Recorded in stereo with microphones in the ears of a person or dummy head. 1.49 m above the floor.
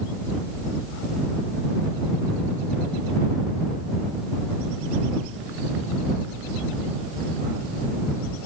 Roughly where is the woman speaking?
No woman speaking in this recording.